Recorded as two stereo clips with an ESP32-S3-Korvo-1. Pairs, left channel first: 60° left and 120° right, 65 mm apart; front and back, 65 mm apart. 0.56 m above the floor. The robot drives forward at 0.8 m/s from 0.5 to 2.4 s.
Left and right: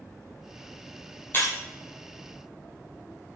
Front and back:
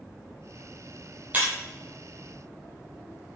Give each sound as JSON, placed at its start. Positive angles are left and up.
{"t": 1.3, "sound": "breaking glass", "azimuth_deg": 115, "distance_m": 5.0}